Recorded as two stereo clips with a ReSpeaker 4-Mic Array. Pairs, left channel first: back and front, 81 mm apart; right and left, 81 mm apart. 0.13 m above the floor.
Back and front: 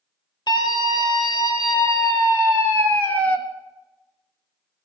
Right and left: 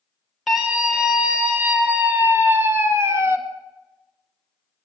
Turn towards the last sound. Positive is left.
turn(degrees=120)